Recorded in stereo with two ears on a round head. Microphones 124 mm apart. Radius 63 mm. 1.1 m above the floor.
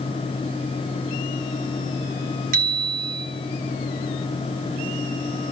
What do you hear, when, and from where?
2.5 s a bicycle bell: 60° right (ahead or behind), 4 m